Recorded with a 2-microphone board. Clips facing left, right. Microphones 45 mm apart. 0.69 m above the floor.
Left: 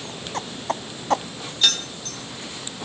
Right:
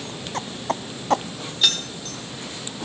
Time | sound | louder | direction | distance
1.6 | keys jangling | even | centre (ahead or behind) | 1.7 m